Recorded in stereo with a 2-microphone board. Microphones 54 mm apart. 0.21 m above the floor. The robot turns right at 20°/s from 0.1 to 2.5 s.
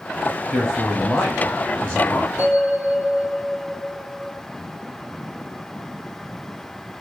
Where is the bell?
15° right (ahead or behind), 1.4 m.